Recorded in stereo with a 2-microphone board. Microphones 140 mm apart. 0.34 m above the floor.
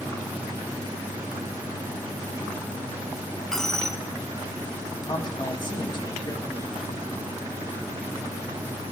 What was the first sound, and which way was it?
A dropped coin, 5° left (ahead or behind).